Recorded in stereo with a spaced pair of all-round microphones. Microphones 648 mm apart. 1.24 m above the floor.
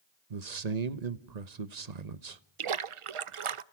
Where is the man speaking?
80° right, 1.1 m.